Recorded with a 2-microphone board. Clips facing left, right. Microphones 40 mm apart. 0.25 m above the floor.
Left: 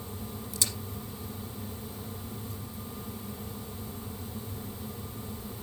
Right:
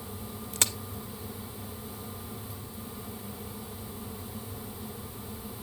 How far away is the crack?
About 1.0 m.